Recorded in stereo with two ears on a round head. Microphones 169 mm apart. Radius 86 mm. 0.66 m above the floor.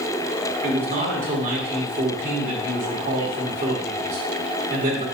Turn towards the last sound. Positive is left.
turn(degrees=-45)  # may be behind; listen again after turning